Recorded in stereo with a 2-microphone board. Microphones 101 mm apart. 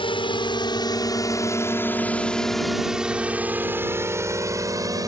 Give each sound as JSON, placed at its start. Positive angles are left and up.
{"t": 0.0, "sound": "a drone", "side_deg": 60}